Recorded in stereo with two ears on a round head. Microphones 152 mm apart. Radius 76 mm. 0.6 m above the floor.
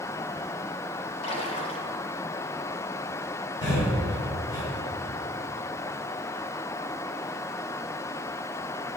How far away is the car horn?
No car horn in this recording.